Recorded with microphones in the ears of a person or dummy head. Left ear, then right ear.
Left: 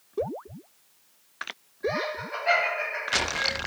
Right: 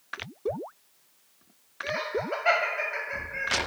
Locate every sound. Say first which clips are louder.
1.8 s laughter: left 1 dB; 45° right (ahead or behind), 1.2 m